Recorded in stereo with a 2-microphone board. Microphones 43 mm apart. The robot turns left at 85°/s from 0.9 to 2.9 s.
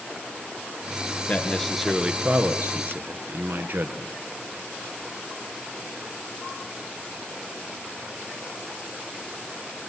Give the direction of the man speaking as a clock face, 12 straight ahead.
11 o'clock.